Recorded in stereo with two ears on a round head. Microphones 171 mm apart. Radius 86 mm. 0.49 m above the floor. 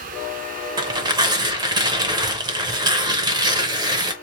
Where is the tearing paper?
25° right (ahead or behind), 0.7 m.